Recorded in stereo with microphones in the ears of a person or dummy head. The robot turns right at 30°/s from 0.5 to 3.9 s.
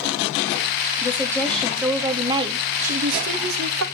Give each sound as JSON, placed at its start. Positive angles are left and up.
{"t": 1.0, "sound": "a woman speaking", "azimuth_deg": 165, "distance_m": 2.5}